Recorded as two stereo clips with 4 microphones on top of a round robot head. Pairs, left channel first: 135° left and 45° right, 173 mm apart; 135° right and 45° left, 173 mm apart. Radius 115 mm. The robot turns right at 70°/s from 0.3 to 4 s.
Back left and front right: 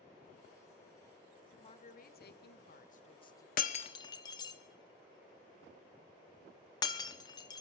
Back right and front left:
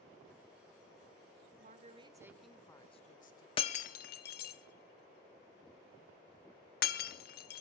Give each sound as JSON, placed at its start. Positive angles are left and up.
{"t": 1.6, "sound": "a woman speaking", "azimuth_deg": 75, "distance_m": 1.5}
{"t": 3.6, "sound": "breaking glass", "azimuth_deg": 170, "distance_m": 0.7}